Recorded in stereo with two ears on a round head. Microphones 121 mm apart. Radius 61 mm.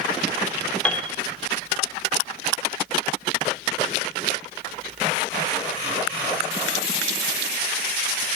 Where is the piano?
10° left (ahead or behind), 1.6 m.